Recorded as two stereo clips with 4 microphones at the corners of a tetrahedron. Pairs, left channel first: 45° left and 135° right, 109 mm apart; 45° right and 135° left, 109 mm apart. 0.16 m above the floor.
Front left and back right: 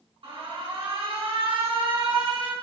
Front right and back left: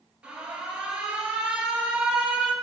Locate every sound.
0.2 s an alarm: 150° right, 2.5 m